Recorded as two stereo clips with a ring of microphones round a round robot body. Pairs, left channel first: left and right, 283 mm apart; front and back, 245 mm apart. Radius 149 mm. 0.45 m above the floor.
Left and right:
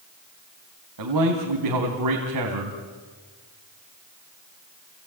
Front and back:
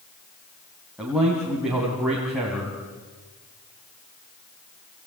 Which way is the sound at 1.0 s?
95° right.